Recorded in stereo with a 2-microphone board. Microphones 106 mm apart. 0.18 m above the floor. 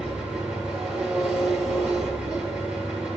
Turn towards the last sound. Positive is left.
turn(degrees=-5)  # may be behind; listen again after turning